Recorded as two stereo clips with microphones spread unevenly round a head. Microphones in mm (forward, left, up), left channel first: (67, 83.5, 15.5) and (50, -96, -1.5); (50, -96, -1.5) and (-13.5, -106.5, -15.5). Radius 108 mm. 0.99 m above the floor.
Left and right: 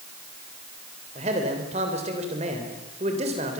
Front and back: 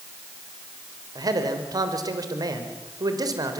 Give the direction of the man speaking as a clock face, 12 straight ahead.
5 o'clock.